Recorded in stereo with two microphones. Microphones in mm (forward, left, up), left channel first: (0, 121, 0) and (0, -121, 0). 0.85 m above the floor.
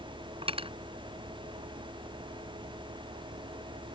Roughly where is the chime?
No chime in this recording.